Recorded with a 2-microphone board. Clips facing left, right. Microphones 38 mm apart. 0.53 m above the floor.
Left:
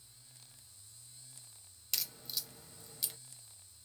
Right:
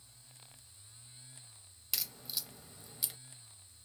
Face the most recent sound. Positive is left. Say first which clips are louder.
# even
turn(degrees=-10)  # may be behind; listen again after turning